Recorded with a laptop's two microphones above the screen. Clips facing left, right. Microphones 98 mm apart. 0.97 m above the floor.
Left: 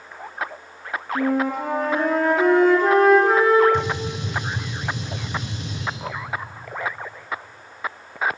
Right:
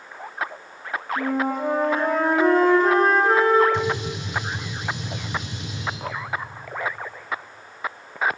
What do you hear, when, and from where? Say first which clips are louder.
1.1 s a flute: left 3 dB; 80° left, 4.5 m
3.7 s a gunshot: even; 60° left (ahead or behind), 5.5 m